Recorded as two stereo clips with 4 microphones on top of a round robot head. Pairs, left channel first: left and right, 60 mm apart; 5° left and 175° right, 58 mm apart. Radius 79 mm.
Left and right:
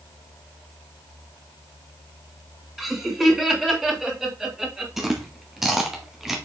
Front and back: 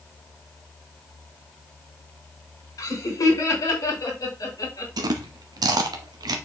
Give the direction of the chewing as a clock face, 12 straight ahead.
6 o'clock.